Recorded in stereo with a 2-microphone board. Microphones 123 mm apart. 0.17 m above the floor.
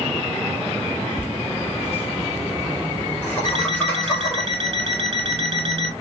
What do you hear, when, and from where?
1.2 s laughter: 15° left (ahead or behind), 1.2 m; by 4.5 s 10° left (ahead or behind), 2 m
3.5 s an alarm clock: 50° right (ahead or behind), 1.4 m